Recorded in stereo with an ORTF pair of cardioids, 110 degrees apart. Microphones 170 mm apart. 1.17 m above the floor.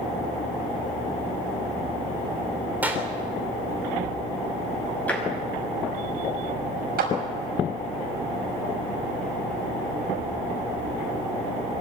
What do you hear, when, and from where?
2.8 s a clap: 10° right, 3 m
5.1 s tapping: 10° left, 5 m
7.0 s a clap: 65° right, 6 m